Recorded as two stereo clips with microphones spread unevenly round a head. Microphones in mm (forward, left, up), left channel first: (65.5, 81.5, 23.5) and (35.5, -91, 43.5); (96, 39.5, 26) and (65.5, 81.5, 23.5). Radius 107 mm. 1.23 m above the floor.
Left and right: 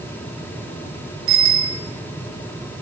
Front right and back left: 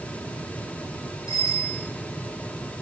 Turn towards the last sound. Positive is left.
turn(degrees=-120)